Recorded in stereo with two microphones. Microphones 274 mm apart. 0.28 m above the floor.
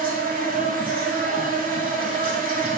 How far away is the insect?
About 0.9 m.